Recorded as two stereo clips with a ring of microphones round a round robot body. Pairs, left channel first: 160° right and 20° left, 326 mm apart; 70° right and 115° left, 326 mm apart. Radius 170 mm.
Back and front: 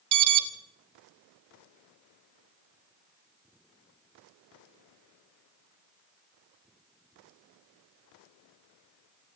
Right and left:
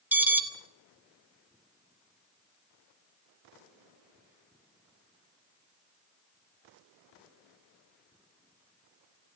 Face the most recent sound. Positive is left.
turn(degrees=30)